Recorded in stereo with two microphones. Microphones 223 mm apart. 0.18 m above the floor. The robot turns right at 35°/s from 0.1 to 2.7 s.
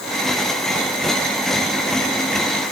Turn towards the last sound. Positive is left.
No sound to turn to.